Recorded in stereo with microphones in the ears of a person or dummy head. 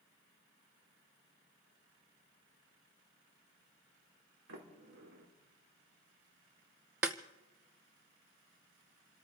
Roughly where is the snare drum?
Centre.